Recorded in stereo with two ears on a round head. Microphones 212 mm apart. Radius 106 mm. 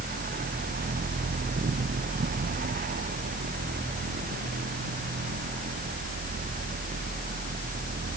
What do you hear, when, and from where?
Only background noise.